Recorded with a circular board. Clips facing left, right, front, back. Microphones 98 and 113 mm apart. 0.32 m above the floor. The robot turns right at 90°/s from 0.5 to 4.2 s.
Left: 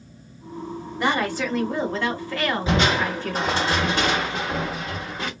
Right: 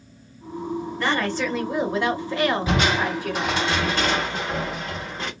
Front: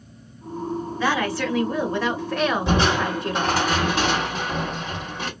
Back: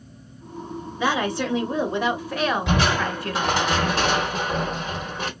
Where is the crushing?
40° left, 2.0 m; by 5.3 s 175° left, 2.0 m.